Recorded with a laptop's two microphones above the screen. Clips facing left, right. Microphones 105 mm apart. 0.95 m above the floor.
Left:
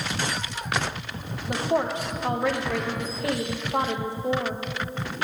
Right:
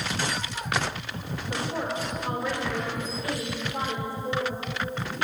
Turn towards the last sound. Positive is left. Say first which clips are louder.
# left 6 dB
turn(degrees=65)  # may be behind; listen again after turning